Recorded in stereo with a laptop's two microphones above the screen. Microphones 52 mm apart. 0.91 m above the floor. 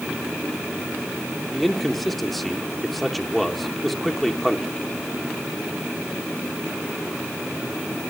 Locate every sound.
1.5 s a man speaking: centre (ahead or behind), 2.5 m